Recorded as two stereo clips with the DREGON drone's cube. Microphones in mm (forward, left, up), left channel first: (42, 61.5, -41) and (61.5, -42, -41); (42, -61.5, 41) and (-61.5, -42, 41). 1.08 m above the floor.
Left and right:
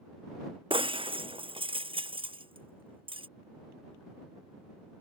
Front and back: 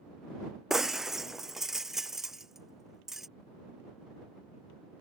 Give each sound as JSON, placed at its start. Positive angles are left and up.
{"t": 0.7, "sound": "breaking glass", "azimuth_deg": -105}